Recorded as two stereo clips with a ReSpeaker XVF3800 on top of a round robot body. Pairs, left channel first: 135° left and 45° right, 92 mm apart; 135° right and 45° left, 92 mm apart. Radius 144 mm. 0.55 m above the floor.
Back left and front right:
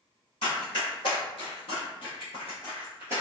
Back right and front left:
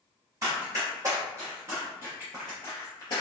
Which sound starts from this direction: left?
Running footsteps, at 0.4 s.